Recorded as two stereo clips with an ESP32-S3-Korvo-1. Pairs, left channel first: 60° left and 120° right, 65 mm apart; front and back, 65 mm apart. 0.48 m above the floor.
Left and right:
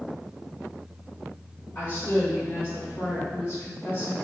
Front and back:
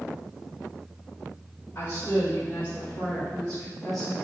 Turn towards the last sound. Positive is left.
turn(degrees=90)